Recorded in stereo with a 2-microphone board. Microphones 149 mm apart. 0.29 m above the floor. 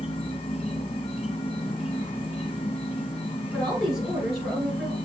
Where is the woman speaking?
Centre (ahead or behind), 4.5 m.